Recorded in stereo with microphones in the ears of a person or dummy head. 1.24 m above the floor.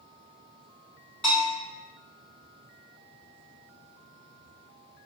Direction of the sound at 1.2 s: 5° left (ahead or behind).